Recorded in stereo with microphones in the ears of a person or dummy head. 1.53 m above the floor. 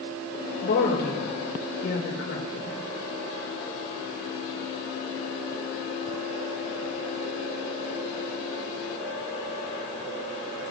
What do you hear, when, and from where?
0.6 s a woman speaking: 60° left (ahead or behind), 5 m